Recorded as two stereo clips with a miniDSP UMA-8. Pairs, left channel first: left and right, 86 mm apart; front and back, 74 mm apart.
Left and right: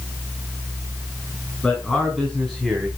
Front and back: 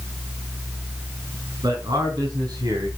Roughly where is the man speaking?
Behind.